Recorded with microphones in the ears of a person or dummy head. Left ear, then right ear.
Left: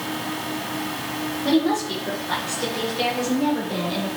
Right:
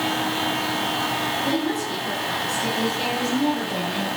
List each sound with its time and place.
1.4 s a woman speaking: 75° left (ahead or behind), 2.5 m; by 4.1 s 90° left, 4 m